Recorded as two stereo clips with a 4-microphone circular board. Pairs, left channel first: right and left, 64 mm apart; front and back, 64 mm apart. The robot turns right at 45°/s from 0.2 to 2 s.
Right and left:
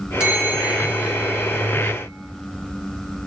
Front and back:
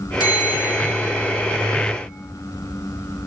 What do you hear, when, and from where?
0.2 s a bell: 15° left, 4 m; by 1.9 s 95° left, 4 m